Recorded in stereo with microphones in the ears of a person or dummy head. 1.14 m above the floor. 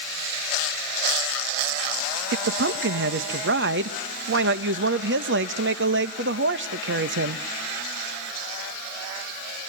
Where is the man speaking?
55° right (ahead or behind), 1.2 m.